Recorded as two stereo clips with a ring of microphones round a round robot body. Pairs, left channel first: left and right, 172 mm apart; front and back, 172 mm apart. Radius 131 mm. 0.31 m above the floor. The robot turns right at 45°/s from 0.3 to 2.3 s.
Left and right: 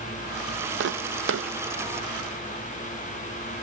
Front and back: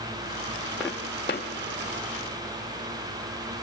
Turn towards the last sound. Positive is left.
turn(degrees=-25)